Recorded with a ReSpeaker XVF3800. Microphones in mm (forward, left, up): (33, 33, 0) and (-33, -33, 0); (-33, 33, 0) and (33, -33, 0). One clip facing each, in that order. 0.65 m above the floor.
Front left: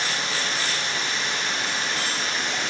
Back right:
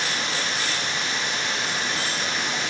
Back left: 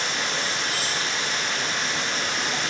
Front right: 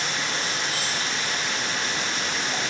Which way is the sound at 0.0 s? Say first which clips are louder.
Even, back left 1 dB; 155° left.